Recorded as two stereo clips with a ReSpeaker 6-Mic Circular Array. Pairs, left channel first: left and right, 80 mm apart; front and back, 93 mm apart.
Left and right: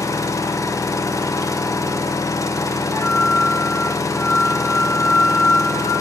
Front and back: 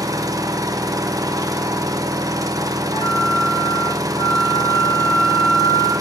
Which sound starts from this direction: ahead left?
A flute, at 2.9 s.